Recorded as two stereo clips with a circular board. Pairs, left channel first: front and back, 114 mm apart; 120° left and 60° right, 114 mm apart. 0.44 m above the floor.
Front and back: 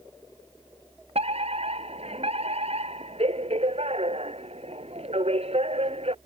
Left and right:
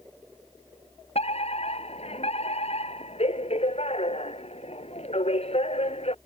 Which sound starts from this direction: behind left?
A fire alarm, at 1.1 s.